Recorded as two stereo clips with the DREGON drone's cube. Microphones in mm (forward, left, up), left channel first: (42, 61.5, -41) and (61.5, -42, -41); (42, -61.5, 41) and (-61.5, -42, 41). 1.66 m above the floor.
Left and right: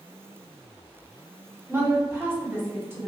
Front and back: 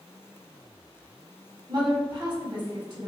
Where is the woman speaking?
145° right, 1.2 m.